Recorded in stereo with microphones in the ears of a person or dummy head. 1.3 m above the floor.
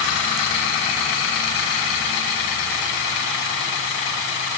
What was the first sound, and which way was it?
Only background noise.